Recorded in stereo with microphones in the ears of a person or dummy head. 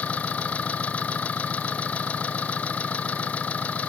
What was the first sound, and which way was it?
An engine running, 10° left (ahead or behind).